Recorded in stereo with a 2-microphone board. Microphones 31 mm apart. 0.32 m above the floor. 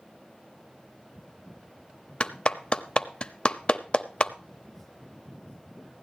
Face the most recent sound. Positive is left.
turn(degrees=35)  # may be behind; listen again after turning